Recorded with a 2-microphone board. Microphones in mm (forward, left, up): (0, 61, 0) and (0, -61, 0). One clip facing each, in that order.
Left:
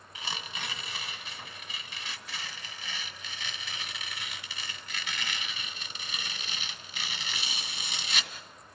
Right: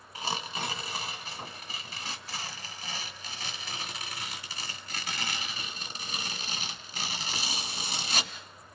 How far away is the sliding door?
No sliding door in this recording.